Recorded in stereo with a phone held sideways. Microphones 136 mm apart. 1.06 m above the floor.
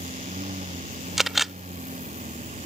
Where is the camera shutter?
Centre (ahead or behind).